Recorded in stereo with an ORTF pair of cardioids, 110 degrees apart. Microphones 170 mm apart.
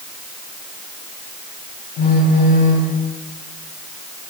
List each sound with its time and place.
2.0 s a phone buzzing: 65° left, 3 m